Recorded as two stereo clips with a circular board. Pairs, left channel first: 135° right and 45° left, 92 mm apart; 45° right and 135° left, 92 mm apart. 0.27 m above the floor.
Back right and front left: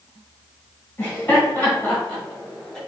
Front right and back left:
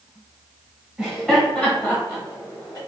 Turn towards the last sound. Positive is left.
turn(degrees=-60)